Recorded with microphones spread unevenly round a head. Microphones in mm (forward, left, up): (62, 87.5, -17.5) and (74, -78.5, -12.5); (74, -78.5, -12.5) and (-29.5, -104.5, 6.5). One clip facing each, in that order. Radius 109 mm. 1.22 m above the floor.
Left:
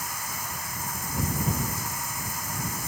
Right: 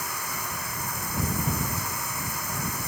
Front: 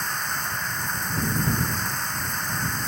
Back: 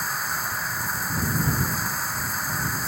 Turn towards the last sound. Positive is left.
turn(degrees=-85)